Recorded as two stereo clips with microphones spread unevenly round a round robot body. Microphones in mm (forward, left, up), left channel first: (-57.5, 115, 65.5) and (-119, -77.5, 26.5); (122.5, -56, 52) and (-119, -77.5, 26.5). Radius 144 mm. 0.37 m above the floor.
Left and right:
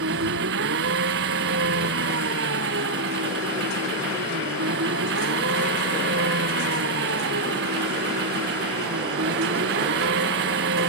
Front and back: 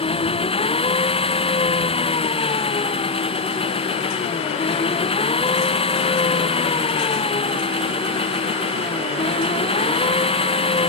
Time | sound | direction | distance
0.0 | an engine running | 60° right | ?